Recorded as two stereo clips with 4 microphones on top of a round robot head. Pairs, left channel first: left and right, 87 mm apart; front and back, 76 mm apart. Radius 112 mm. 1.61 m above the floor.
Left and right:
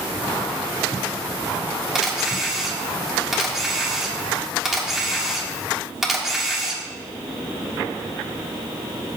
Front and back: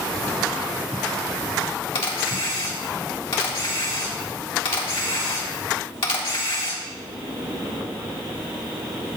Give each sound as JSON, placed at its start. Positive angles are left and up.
{"t": 1.9, "sound": "a camera shutter", "azimuth_deg": -5, "distance_m": 1.7}